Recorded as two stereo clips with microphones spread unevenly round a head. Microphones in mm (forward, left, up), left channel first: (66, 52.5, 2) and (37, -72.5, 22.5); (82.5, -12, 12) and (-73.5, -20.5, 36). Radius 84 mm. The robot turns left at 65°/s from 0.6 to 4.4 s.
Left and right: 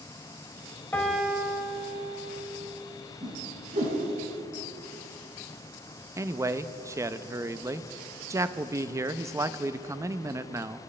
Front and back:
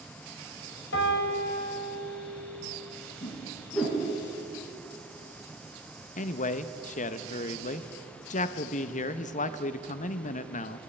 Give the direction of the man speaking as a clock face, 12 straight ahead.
1 o'clock.